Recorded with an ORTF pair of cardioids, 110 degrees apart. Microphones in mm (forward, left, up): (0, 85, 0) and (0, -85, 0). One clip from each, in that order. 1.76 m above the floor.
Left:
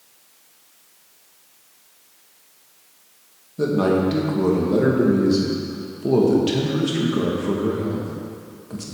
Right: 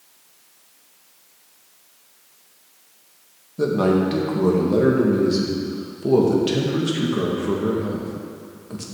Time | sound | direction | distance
3.6 | a man speaking | 5° right | 1.9 m